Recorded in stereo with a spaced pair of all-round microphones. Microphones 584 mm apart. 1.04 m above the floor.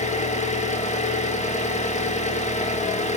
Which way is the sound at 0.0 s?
10° left (ahead or behind).